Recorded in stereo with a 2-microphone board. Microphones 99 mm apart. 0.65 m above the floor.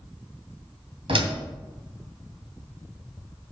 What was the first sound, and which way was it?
A door slam, 65° right (ahead or behind).